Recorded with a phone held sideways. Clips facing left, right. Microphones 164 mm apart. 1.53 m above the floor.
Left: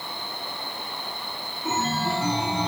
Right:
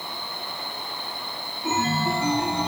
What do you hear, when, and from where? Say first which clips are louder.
1.6 s a chime: right 2 dB; 10° left (ahead or behind), 1.0 m